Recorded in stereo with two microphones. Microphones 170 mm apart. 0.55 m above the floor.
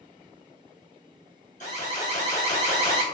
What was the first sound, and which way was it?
An alarm, 45° left (ahead or behind).